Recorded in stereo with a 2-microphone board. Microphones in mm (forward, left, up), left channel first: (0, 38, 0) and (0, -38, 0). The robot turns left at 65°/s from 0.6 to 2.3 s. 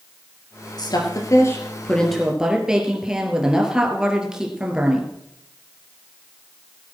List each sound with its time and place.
0.8 s a woman speaking: 90° left, 3 m; by 5.1 s 10° right, 3 m